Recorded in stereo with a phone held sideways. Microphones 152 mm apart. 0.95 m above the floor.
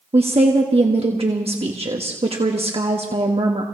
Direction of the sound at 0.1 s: 40° right (ahead or behind).